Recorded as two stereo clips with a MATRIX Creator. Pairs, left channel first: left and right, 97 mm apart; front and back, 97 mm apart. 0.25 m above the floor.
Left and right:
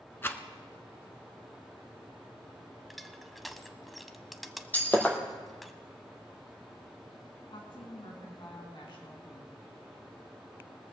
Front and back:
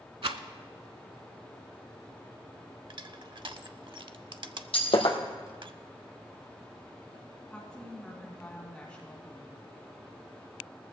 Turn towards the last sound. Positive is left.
turn(degrees=75)